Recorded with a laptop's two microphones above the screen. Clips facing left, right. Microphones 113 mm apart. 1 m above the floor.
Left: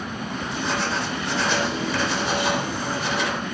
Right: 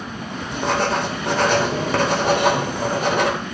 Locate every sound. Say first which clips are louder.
0.5 s writing: right 7 dB; 50° right (ahead or behind), 3.5 m